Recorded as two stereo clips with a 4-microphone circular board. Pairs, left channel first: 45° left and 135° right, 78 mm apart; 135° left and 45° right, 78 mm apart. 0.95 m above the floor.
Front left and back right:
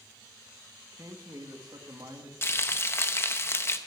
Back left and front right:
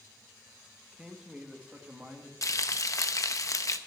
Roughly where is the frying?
Left.